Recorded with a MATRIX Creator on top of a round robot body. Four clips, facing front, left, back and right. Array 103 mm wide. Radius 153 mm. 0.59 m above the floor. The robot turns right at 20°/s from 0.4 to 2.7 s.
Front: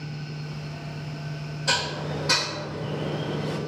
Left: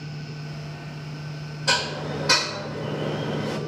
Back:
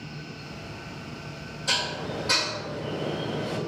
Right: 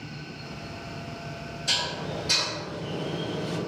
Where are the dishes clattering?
70° left, 1.9 m; by 3.6 s 90° left, 1.9 m.